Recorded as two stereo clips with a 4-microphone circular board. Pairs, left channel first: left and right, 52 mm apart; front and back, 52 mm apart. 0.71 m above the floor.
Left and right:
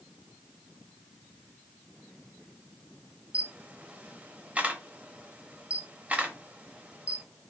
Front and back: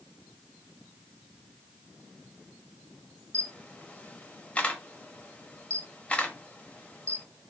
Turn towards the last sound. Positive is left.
turn(degrees=-45)